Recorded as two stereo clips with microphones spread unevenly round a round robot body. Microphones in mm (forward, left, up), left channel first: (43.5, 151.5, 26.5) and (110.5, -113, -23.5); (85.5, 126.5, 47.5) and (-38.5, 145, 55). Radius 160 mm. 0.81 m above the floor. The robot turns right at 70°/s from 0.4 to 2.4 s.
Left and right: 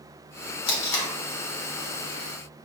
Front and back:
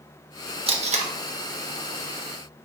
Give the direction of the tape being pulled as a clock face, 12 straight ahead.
8 o'clock.